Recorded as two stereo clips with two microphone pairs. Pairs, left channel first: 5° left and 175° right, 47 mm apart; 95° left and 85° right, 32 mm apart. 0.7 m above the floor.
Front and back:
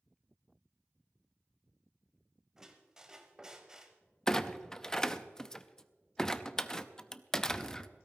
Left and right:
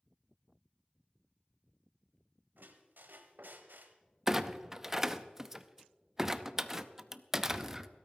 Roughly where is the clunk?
Ahead right.